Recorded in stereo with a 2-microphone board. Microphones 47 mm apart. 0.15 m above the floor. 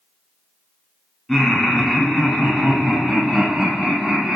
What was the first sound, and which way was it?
Laughter, 5° left (ahead or behind).